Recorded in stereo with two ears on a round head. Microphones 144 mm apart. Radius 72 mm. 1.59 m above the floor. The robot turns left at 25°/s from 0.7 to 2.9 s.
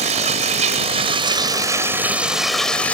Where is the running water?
135° right; by 2.9 s 170° left.